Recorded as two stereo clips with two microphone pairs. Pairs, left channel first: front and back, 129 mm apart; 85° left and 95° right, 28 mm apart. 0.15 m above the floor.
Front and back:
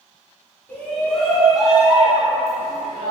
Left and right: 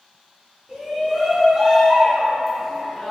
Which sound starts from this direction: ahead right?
A shout, at 0.7 s.